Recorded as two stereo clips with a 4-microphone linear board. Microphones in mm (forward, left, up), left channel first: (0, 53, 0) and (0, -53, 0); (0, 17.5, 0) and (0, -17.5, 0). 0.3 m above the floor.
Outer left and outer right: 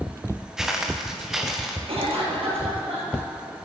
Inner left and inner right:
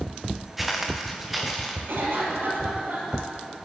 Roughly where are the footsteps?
Centre.